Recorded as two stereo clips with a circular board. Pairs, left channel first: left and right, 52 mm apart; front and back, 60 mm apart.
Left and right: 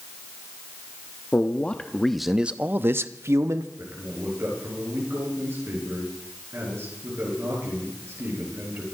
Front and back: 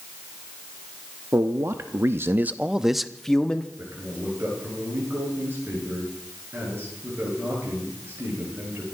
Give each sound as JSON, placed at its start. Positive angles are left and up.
{"t": 1.3, "sound": "a man speaking", "azimuth_deg": 145, "distance_m": 0.9}
{"t": 3.8, "sound": "a man speaking", "azimuth_deg": -125, "distance_m": 8.5}